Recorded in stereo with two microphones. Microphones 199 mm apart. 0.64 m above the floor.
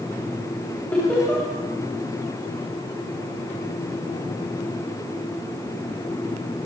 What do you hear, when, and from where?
0.9 s laughter: 10° left (ahead or behind), 4 m